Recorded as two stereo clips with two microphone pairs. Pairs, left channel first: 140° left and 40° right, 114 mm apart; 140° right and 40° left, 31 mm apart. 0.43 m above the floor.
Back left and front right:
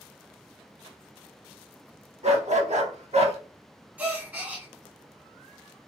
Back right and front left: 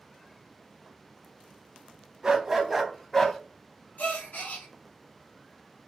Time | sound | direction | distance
2.2 | a dog barking | 25° right | 0.8 m
4.0 | a gasp | 120° right | 1.0 m